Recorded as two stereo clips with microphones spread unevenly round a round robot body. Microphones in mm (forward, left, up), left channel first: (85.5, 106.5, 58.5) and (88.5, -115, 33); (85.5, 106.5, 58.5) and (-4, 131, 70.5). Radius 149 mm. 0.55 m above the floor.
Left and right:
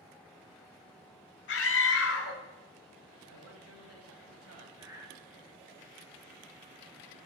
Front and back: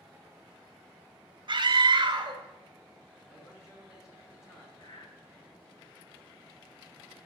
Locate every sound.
1.5 s a scream: 130° left, 1.7 m
3.3 s a man speaking: 90° right, 3 m
4.8 s breathing: 20° right, 2.0 m